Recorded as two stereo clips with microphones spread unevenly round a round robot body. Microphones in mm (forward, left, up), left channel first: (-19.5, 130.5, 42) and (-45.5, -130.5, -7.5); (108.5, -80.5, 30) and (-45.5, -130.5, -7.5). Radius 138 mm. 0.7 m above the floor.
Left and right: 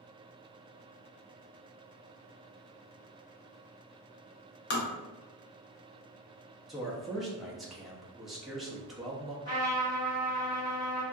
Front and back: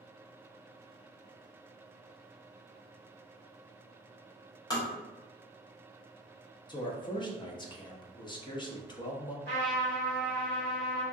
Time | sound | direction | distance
4.7 | tapping | 90° left | 0.8 m
6.7 | a man speaking | 30° right | 0.6 m
9.4 | a trumpet | 55° left | 1.7 m